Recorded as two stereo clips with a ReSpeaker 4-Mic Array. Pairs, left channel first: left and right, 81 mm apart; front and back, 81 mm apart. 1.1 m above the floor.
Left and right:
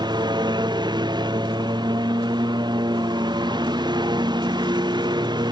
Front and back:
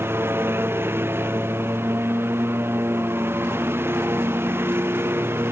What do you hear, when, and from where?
0.0 s a lawn mower: 115° right